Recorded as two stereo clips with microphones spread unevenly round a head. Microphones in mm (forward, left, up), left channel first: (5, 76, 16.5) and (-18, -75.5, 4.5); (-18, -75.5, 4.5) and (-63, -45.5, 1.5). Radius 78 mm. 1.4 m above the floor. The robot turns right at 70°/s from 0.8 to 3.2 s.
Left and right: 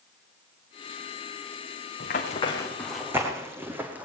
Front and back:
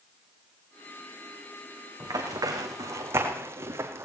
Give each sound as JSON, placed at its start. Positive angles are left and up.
{"t": 2.0, "sound": "running footsteps", "azimuth_deg": 110, "distance_m": 6.0}